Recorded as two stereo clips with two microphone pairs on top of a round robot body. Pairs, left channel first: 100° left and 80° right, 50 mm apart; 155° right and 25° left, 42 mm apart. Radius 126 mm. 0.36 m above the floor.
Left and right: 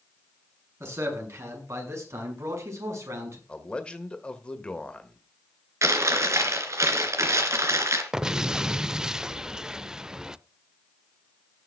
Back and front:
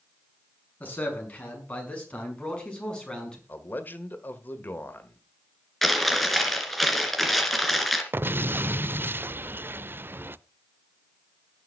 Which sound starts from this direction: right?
A man speaking, at 0.8 s.